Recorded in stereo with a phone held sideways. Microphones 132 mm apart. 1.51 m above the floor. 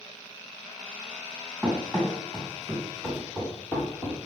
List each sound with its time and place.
1.6 s running footsteps: 10° right (ahead or behind), 4.5 m; by 4.2 s 20° left (ahead or behind), 3 m